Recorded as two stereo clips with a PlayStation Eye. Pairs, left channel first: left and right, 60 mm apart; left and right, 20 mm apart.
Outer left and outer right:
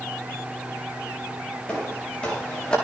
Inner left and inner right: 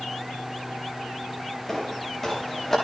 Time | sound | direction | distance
1.7 | footsteps | 15° left (ahead or behind) | 8 m